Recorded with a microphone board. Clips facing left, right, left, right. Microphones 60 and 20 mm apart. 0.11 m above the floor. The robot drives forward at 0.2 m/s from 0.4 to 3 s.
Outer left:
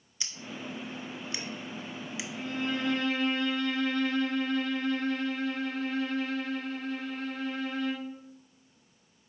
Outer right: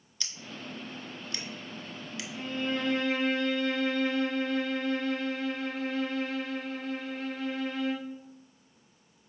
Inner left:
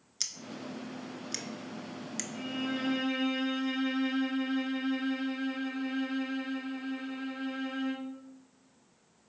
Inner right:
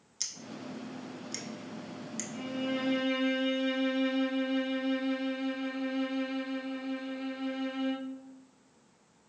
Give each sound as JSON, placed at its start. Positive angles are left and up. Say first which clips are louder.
{"t": 0.2, "sound": "scissors", "louder": "outer left 2 dB, inner left 2 dB", "side_deg": 20, "distance_m": 0.5}
{"t": 2.3, "sound": "a violin", "louder": "outer right 1 dB, inner right 1 dB", "side_deg": -25, "distance_m": 1.8}